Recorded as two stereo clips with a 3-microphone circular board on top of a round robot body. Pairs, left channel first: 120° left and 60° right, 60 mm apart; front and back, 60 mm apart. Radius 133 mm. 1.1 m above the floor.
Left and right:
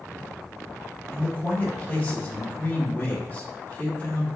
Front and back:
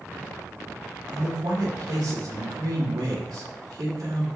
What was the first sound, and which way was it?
A man speaking, straight behind.